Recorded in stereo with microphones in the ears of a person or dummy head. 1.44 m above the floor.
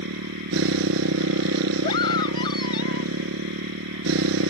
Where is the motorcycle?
80° right.